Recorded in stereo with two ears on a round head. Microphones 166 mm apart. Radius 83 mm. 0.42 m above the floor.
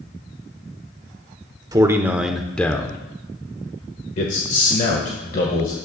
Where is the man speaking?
20° right (ahead or behind), 0.8 m; by 5.8 s 45° left (ahead or behind), 1.8 m.